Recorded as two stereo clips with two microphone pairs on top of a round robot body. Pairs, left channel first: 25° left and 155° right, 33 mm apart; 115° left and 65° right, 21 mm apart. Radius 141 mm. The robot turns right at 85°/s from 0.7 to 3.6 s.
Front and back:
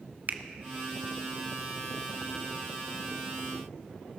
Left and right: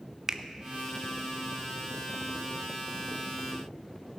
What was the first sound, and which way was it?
A finger snap, 125° right.